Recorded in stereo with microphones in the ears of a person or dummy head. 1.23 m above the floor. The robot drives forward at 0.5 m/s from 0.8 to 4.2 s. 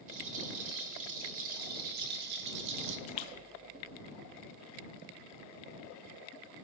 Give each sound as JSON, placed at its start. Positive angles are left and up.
{"t": 0.1, "sound": "a rattle", "side_deg": -40, "distance_m": 2.0}
{"t": 3.1, "sound": "a splash", "side_deg": 35, "distance_m": 0.7}